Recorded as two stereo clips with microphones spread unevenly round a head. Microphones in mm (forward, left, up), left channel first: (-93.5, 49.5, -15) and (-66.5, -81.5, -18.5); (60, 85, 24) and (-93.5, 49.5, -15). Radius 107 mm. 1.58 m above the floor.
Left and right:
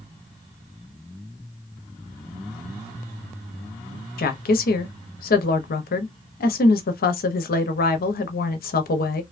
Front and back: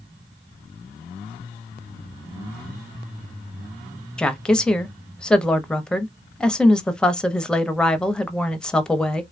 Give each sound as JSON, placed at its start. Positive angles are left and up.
{"t": 4.2, "sound": "a woman speaking", "azimuth_deg": 95, "distance_m": 0.6}